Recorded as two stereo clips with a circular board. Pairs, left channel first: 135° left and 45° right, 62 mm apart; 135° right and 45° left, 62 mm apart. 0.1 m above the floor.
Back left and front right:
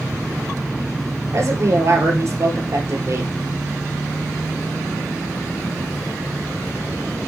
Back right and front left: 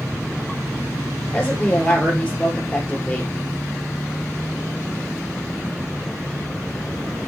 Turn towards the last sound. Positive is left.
turn(degrees=-65)